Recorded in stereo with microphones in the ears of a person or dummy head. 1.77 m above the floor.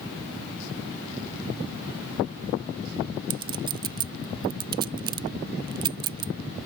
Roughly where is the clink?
Right.